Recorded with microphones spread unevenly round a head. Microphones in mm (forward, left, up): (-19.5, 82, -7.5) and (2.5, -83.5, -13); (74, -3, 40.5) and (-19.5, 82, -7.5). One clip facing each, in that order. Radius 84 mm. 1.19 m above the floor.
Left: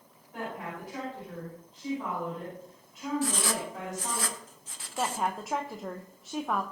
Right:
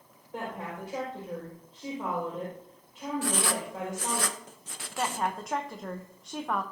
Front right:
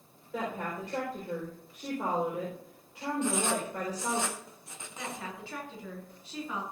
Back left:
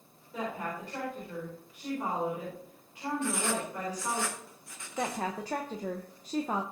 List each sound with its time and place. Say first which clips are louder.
0.3 s a woman speaking: right 1 dB, front right 1 dB; 20° right, 5 m
3.2 s writing: even, front right 3 dB; 120° right, 0.7 m
5.0 s a woman speaking: even, back left 8 dB; 175° right, 0.8 m